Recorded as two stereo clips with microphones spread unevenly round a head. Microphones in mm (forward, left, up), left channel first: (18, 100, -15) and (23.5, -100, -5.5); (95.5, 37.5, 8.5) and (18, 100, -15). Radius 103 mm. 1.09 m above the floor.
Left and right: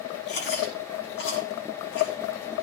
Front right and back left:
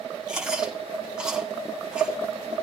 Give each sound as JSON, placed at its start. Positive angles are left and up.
{"t": 0.3, "sound": "chewing", "azimuth_deg": 60, "distance_m": 6.5}